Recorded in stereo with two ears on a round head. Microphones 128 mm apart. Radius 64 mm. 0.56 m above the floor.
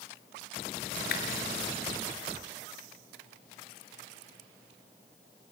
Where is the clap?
70° left (ahead or behind), 7 m.